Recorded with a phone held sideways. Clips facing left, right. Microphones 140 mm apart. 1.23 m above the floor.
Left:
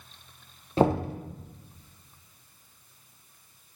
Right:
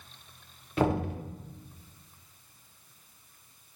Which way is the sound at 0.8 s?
30° left (ahead or behind).